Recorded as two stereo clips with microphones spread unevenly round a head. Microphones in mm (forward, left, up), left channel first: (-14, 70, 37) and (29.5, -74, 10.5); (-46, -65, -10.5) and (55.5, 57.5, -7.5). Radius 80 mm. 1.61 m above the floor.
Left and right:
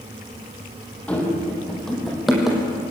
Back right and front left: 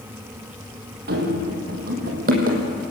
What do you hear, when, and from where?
1.1 s running footsteps: 30° left, 4 m; by 2.6 s 15° left, 4 m